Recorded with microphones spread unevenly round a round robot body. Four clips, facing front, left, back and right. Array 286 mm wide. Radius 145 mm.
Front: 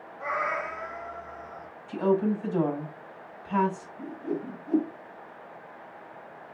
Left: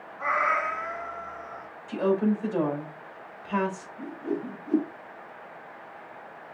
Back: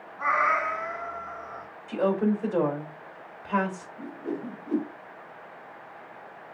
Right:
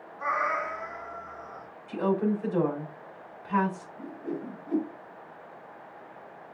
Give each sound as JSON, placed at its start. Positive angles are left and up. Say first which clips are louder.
{"t": 0.2, "sound": "a cat meowing", "louder": "left 3 dB, back 6 dB", "azimuth_deg": 160, "distance_m": 2.0}
{"t": 1.9, "sound": "a woman speaking", "louder": "left 2 dB, even", "azimuth_deg": 170, "distance_m": 3.5}
{"t": 4.0, "sound": "a whoosh", "louder": "left 5 dB, front 1 dB", "azimuth_deg": 165, "distance_m": 3.5}